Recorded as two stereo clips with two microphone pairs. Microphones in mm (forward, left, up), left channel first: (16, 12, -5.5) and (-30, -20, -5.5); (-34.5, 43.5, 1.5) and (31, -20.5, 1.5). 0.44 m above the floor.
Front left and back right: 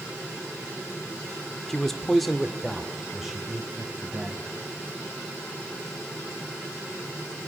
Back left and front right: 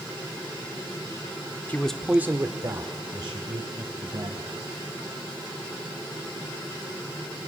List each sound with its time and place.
1.7 s a man speaking: 110° left, 0.9 m; by 4.5 s 60° right, 3 m